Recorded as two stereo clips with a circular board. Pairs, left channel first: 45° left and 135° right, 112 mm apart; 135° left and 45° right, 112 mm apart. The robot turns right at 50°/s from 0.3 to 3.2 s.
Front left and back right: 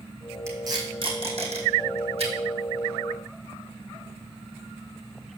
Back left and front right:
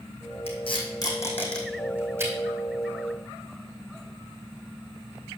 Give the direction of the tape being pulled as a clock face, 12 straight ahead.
7 o'clock.